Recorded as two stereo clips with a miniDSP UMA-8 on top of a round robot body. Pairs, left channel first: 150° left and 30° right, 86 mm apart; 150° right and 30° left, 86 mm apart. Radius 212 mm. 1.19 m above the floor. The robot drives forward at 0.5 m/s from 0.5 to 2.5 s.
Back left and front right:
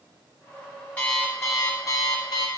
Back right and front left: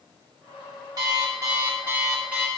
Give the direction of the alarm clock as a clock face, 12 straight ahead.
9 o'clock.